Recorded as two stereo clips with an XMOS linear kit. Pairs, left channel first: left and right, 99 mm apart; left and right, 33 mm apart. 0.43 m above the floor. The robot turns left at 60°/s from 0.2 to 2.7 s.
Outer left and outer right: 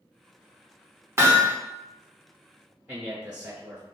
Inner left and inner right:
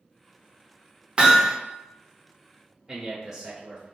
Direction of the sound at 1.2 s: 30° right (ahead or behind).